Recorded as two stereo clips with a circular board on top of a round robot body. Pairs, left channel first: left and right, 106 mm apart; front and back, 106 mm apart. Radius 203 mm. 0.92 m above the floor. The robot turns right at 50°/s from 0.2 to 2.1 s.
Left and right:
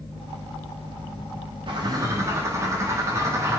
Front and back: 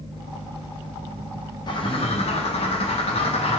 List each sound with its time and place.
1.7 s a bird: 50° right, 1.2 m; by 3.6 s 25° right, 1.2 m